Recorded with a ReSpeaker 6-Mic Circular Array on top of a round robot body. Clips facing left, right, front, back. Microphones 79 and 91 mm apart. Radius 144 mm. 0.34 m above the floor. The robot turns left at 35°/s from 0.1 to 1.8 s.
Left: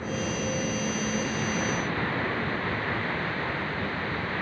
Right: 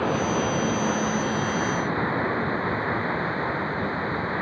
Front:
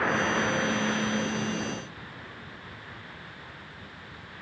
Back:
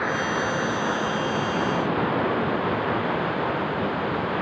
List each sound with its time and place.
0.0 s running water: 95° right; by 4.4 s 155° right